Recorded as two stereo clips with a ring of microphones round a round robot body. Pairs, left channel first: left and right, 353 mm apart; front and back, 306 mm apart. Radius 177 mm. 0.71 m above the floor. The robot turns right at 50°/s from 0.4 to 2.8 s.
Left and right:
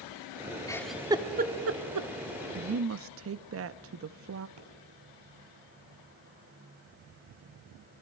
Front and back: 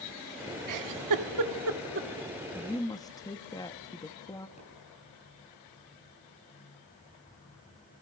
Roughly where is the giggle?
Behind.